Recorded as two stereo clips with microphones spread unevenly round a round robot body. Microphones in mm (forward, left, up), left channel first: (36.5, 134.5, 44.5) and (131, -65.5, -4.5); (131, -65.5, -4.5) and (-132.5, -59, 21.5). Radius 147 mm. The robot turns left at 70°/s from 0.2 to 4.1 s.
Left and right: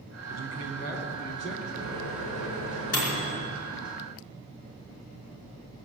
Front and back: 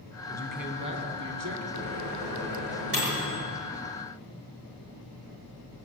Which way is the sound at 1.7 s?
165° right.